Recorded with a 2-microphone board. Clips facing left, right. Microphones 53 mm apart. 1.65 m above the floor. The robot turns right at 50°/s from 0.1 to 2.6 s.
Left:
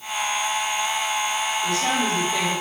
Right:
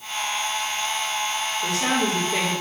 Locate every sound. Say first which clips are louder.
1.6 s a woman speaking: right 2 dB; 70° right, 2.0 m; by 2.6 s 20° right, 2.0 m